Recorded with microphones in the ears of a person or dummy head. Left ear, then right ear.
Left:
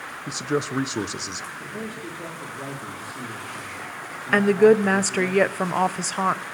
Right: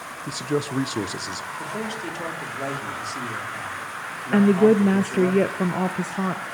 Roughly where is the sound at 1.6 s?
Right.